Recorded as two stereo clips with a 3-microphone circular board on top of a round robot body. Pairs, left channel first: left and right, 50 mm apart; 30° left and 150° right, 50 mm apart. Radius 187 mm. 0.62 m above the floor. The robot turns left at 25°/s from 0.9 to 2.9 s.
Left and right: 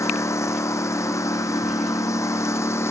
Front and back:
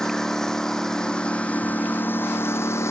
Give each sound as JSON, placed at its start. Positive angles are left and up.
{"t": 0.0, "sound": "a lawn mower", "azimuth_deg": 110}